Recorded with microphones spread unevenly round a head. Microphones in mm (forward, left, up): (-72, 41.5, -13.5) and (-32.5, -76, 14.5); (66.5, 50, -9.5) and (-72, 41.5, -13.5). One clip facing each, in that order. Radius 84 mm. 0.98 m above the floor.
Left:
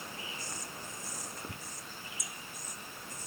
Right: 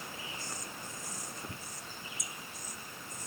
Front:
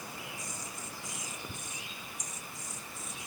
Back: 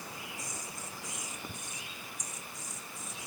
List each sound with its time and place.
Only background noise.